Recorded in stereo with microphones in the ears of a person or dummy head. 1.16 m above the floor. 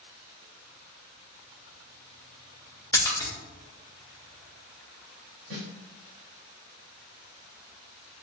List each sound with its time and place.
2.9 s a splash: 15° left (ahead or behind), 0.9 m
5.5 s a snare drum: 60° right (ahead or behind), 1.7 m